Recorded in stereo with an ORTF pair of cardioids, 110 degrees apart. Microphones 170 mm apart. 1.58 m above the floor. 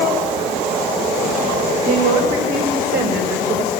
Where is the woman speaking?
60° right, 6.5 m; by 3.7 s 80° right, 6.5 m.